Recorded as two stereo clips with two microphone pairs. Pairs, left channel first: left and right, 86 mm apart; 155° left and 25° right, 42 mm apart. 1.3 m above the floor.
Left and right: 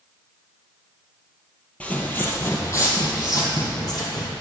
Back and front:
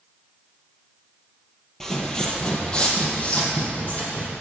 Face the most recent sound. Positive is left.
turn(degrees=115)